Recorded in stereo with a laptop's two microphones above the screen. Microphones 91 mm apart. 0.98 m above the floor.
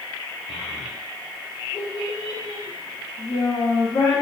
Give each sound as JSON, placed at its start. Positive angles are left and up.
{"t": 0.5, "sound": "a child speaking", "side_deg": 85, "distance_m": 2.0}